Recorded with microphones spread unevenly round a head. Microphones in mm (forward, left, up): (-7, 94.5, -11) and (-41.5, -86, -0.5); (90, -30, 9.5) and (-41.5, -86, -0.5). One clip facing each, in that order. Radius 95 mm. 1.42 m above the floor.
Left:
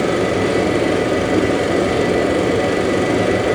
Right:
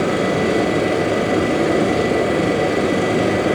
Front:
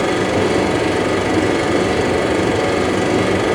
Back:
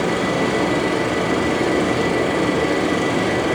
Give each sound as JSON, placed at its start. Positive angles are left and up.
{"t": 0.0, "sound": "a machine running", "azimuth_deg": 0, "distance_m": 1.7}